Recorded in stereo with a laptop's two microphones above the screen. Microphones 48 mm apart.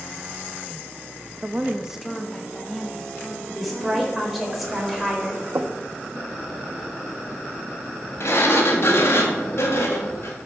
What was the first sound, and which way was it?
A woman speaking, 35° right (ahead or behind).